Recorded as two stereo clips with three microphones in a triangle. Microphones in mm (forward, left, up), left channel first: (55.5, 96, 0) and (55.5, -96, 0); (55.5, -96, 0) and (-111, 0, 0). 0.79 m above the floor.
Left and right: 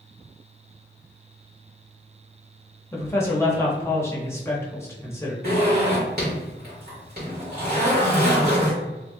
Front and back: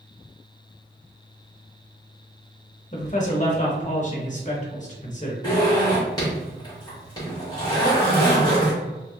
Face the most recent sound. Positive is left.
turn(degrees=-95)